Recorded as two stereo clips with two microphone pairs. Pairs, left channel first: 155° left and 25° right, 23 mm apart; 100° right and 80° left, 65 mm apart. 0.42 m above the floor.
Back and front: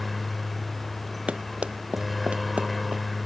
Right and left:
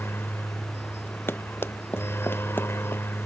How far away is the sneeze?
I don't hear a sneeze.